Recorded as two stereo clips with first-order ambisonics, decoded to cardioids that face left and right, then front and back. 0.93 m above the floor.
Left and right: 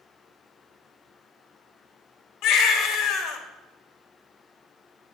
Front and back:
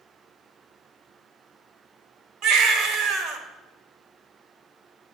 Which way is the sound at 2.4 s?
135° left.